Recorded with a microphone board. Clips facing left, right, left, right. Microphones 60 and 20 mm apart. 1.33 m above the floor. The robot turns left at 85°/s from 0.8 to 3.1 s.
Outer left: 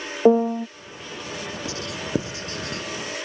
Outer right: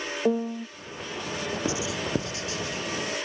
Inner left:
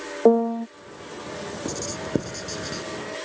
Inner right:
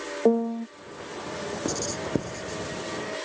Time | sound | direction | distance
0.2 | a piano | 35° left (ahead or behind) | ?
1.6 | writing | 20° right (ahead or behind) | ?